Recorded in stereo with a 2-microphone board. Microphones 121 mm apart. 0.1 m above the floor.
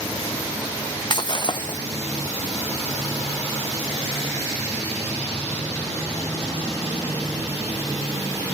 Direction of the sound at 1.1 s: 40° left (ahead or behind).